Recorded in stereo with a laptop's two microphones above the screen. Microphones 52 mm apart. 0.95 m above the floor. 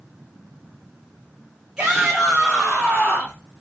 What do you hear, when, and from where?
1.8 s a shout: 15° right (ahead or behind), 0.8 m; by 3.4 s 35° left (ahead or behind), 1.2 m